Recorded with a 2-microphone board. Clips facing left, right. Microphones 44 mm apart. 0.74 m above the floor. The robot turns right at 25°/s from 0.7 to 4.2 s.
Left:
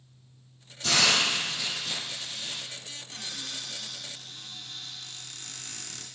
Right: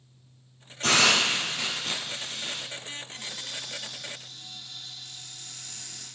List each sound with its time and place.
0.8 s a hiss: 85° right, 4 m; by 2.6 s 40° right, 4 m
3.1 s a cupboard door: 85° left, 2.5 m; by 6.0 s 60° left (ahead or behind), 2.5 m